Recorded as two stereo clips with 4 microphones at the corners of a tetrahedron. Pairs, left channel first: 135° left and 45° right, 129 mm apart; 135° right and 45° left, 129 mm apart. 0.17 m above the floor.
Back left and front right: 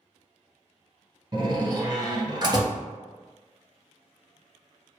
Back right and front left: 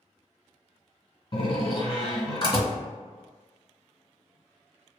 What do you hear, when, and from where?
1.3 s a door slam: 95° right, 1.6 m